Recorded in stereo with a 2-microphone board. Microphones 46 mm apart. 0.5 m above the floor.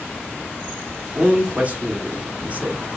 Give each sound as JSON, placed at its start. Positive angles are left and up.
{"t": 1.1, "sound": "a man speaking", "side_deg": -30, "distance_m": 1.0}